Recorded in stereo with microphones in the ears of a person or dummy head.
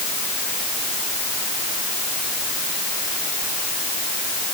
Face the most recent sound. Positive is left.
No sound to turn to.